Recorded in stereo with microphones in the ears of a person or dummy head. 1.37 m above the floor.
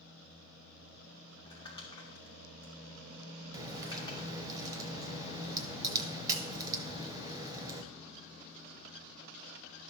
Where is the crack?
20° right (ahead or behind), 0.7 m.